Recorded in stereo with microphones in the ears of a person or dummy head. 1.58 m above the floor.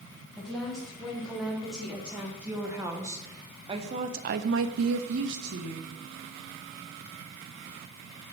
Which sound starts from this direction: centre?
A woman speaking, at 0.4 s.